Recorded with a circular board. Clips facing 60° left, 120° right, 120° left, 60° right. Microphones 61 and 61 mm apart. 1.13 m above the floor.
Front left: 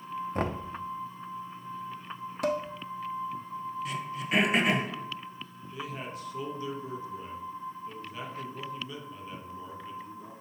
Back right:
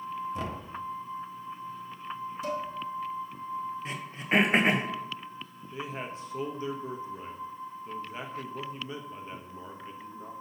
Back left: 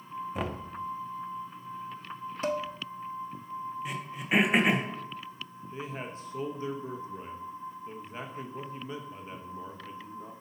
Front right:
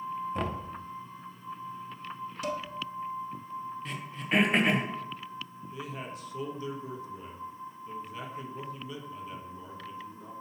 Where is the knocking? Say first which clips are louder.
Front left 4 dB, back left 2 dB; 35° left, 0.5 m.